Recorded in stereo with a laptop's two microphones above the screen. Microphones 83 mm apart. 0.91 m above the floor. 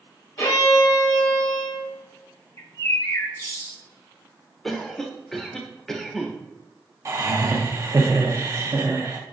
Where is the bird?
35° left (ahead or behind), 0.7 m.